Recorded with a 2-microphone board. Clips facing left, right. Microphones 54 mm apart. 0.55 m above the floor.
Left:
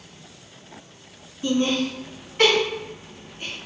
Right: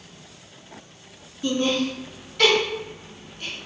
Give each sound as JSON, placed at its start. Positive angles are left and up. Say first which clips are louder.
{"t": 1.4, "sound": "laughter", "louder": "left 1 dB", "side_deg": 30, "distance_m": 1.9}